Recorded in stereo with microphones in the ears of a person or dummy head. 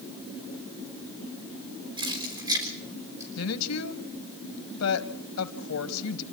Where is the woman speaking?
85° left, 2 m.